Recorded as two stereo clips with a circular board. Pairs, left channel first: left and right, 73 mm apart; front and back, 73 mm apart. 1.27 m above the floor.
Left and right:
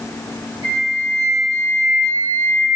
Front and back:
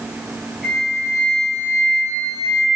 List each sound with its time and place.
0.6 s a flute: 90° right, 8.5 m